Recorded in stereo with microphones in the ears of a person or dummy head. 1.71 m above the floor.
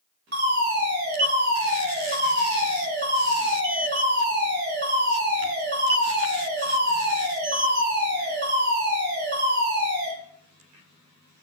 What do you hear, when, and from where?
0.3 s a fire alarm: 55° right (ahead or behind), 2 m